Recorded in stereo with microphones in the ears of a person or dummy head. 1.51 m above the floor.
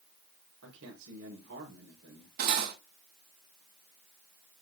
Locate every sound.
0.6 s a man speaking: 65° right (ahead or behind), 4 m
2.4 s cutlery clinking: 45° right (ahead or behind), 1.3 m